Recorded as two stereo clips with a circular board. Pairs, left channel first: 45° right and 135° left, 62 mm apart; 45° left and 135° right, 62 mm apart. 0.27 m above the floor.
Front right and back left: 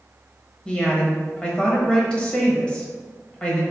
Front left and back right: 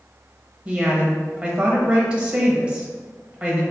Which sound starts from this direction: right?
A woman speaking, at 0.7 s.